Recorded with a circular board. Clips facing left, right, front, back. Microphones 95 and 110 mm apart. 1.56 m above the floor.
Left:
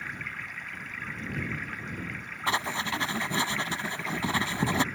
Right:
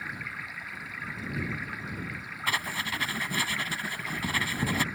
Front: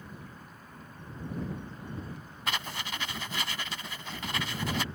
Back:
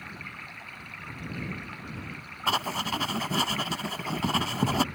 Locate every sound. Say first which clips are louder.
0.0 s running water: even, back 3 dB; 175° right
2.5 s writing: left 3 dB, back 7 dB; 145° left